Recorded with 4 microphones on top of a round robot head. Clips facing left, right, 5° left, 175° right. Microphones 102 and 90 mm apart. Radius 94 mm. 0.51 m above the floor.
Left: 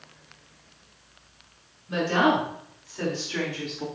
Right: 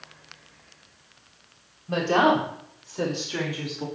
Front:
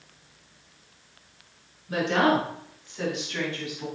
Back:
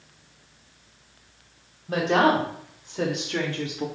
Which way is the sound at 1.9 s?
135° right.